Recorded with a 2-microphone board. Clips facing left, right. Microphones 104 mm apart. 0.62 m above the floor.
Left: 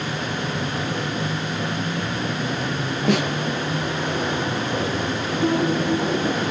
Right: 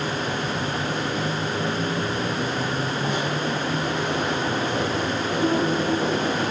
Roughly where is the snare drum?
Left.